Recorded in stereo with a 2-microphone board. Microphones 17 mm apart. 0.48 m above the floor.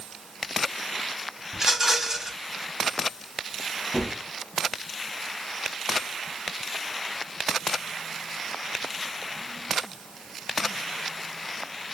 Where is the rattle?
25° right (ahead or behind), 3.5 m.